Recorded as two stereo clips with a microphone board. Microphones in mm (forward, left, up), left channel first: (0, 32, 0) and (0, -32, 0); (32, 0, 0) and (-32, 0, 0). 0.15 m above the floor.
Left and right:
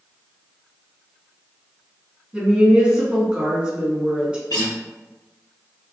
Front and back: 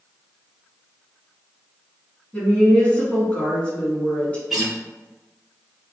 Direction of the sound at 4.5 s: 95° left.